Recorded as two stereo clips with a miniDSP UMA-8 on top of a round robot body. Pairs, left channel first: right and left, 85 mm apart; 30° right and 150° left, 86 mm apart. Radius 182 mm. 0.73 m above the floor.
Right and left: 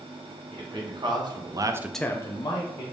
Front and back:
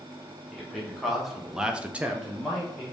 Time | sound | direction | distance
0.5 | a man speaking | 60° left | 1.5 m